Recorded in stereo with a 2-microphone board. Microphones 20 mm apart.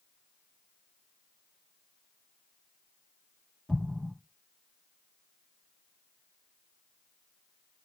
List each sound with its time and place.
3.7 s an explosion: 35° left (ahead or behind), 1.4 m